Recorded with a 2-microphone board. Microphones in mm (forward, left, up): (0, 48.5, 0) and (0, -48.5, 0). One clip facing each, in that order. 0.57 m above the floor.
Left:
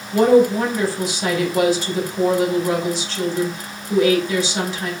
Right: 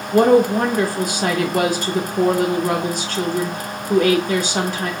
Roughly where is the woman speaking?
Right.